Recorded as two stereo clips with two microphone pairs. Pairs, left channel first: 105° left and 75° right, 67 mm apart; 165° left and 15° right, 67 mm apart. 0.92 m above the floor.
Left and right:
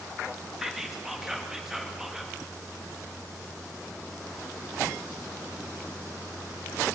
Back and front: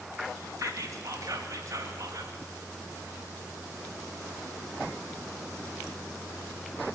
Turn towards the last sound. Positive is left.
turn(degrees=5)